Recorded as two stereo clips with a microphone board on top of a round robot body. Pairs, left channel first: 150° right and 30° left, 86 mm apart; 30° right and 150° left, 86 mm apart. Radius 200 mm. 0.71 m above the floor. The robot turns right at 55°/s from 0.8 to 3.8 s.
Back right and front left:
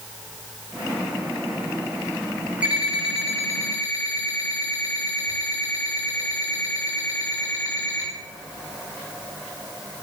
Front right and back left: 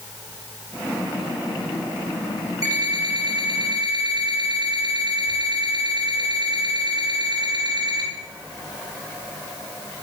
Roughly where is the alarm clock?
Left.